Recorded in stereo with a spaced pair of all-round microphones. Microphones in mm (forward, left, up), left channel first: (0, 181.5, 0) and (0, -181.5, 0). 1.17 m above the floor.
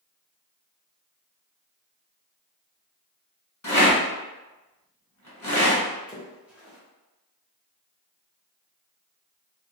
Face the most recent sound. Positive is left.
turn(degrees=-5)  # may be behind; listen again after turning